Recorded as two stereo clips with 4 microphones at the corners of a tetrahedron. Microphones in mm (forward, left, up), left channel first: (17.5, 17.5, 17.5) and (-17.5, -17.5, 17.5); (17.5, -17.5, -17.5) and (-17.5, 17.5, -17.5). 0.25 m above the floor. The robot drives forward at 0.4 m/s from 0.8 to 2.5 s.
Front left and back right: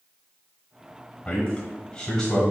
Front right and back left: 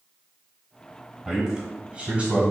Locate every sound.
1.2 s a man speaking: 70° left, 1.2 m; by 2.4 s 115° left, 1.3 m